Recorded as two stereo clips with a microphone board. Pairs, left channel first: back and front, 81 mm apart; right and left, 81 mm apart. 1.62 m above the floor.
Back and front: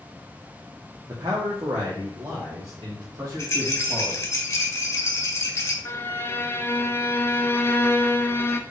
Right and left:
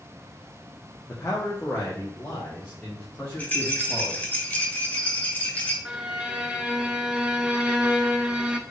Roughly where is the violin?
Behind.